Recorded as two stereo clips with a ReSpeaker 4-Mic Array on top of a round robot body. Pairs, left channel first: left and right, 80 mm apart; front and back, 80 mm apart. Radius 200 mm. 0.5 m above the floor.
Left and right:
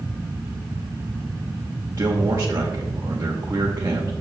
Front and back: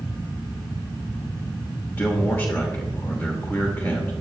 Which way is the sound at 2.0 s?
50° right.